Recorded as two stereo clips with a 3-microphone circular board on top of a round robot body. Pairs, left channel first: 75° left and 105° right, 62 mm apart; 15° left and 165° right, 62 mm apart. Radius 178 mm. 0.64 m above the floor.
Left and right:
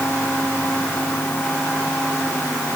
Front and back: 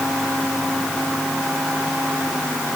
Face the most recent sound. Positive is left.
No sound to turn to.